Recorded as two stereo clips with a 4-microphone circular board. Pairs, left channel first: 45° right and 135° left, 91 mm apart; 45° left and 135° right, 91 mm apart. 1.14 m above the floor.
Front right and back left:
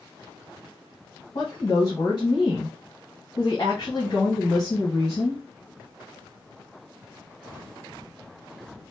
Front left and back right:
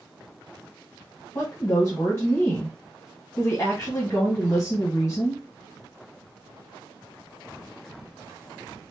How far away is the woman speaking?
About 1.3 m.